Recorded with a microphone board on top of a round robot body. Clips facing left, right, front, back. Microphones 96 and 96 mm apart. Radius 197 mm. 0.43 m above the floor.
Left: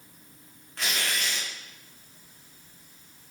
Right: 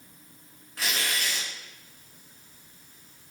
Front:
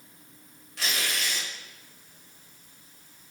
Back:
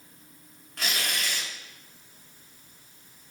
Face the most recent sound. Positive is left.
turn(degrees=-175)